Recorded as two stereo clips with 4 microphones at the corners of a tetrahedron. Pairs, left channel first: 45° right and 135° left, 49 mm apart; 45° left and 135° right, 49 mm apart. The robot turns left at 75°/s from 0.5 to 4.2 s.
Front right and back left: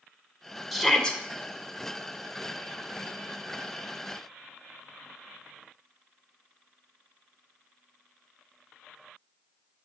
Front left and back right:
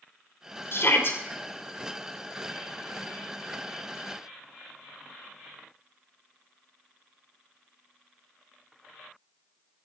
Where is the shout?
50° left, 2 m; by 1.2 s 15° left, 2 m.